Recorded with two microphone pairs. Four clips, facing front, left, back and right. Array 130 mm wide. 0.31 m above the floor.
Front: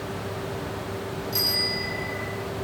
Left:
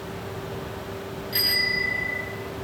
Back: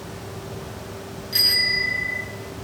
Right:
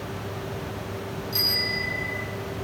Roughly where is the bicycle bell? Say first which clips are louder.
Left 5 dB, back 1 dB; behind left.